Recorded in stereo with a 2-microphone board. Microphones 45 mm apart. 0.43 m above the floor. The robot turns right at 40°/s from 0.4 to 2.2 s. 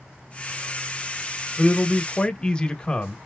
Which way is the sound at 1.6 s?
20° left (ahead or behind).